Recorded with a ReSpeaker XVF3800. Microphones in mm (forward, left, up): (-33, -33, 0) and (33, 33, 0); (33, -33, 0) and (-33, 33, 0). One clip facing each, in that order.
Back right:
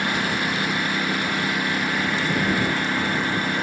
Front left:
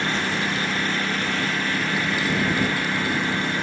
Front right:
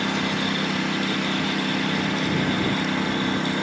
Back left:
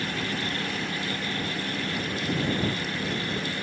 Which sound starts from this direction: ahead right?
A lawn mower, at 0.0 s.